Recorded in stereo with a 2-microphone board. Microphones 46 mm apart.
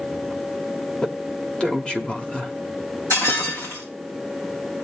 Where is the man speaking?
25° left (ahead or behind), 1.4 m.